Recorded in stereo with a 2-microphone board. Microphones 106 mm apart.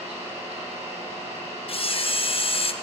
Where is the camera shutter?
60° left (ahead or behind), 0.6 m.